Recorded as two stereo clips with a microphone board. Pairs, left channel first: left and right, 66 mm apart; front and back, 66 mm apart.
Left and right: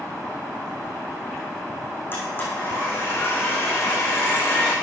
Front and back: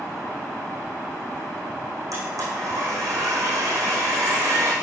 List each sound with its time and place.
2.1 s a blender: 150° left, 7.5 m